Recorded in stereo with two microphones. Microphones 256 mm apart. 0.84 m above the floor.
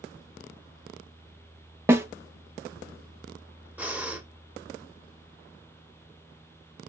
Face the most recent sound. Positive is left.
turn(degrees=-5)  # may be behind; listen again after turning